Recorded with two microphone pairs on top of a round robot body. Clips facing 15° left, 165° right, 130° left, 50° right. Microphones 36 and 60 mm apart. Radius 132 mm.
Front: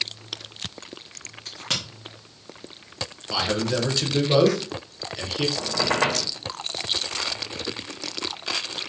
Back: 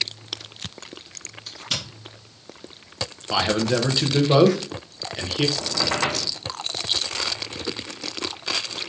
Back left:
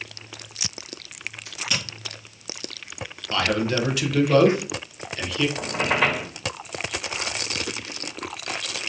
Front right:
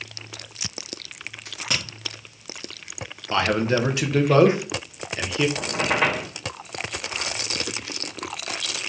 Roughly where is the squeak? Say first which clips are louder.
Front 1 dB, even; ahead.